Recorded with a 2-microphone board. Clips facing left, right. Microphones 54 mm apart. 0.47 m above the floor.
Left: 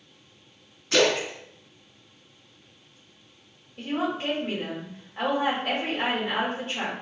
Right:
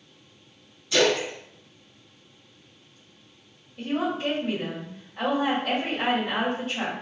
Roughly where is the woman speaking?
Left.